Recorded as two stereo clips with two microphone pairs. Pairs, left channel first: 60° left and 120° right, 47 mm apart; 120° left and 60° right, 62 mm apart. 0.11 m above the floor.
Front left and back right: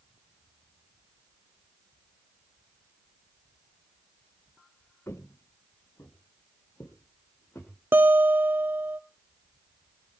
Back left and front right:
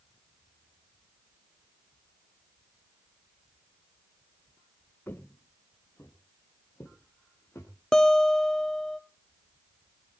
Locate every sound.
5.1 s footsteps: 70° left, 1.2 m; by 7.7 s 75° left, 5 m
7.9 s a guitar: 155° right, 0.9 m